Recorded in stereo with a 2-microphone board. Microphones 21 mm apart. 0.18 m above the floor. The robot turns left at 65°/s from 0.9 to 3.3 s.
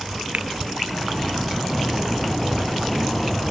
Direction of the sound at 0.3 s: 85° right.